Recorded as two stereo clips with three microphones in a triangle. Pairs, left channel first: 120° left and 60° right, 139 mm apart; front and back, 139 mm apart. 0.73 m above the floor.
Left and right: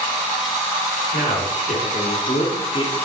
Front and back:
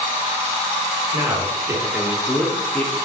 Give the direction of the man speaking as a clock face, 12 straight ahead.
8 o'clock.